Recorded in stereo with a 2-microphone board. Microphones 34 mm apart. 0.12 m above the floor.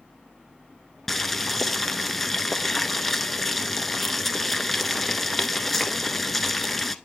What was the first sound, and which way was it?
Boiling, 5° left (ahead or behind).